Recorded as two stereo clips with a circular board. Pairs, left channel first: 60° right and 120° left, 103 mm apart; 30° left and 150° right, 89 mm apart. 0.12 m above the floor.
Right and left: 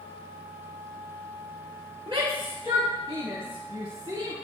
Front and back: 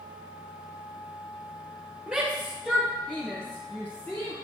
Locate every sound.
2.1 s a shout: 130° left, 2.5 m; by 4.3 s 85° left, 2.5 m